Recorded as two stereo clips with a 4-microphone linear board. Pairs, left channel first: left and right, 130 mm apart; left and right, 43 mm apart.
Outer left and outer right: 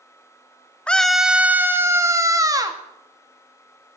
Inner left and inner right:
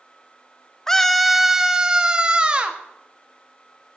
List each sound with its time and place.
0.9 s a scream: 10° left (ahead or behind), 0.9 m; by 2.8 s 30° right (ahead or behind), 2 m